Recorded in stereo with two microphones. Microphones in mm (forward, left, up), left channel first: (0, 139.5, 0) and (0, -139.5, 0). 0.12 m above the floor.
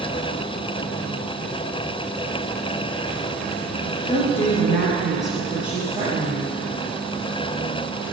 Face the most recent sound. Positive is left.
turn(degrees=-10)  # may be behind; listen again after turning